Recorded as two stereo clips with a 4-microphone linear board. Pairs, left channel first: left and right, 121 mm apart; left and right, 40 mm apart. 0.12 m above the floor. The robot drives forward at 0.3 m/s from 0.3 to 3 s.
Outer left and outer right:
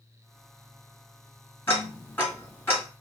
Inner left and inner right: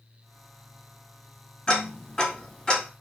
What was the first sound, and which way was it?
Ticking, 20° left (ahead or behind).